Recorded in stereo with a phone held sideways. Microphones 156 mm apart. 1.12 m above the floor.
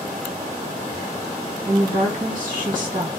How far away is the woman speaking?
About 1.5 m.